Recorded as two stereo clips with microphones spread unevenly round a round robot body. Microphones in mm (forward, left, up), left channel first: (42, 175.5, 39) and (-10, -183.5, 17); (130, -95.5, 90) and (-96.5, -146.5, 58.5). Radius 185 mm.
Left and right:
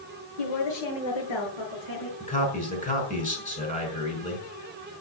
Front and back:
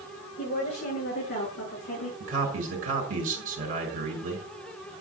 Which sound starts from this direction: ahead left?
A woman speaking, at 0.4 s.